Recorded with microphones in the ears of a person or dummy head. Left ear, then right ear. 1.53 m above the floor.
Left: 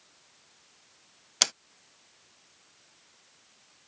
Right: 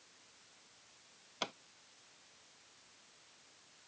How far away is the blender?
I don't hear a blender.